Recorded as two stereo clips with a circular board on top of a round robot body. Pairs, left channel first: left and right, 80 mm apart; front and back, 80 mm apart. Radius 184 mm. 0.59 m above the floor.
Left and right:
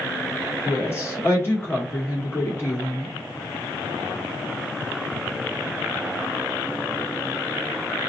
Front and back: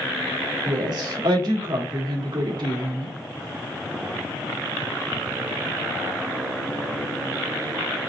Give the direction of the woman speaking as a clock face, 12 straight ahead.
7 o'clock.